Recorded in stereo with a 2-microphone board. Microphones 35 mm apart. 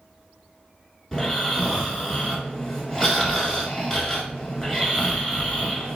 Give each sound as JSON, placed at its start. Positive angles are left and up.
{"t": 1.1, "sound": "snoring", "side_deg": 15, "distance_m": 1.3}